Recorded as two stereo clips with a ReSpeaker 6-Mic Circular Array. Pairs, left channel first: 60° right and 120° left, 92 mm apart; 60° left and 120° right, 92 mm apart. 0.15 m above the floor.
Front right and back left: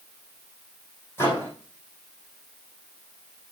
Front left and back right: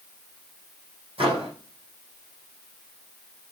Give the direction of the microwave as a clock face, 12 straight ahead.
4 o'clock.